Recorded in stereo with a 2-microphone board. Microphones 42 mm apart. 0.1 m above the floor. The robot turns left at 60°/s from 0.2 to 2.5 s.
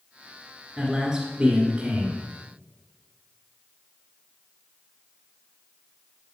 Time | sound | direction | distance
0.8 | a man speaking | 5° right (ahead or behind) | 1.7 m